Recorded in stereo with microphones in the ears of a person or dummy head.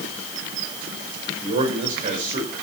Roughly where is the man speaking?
Right.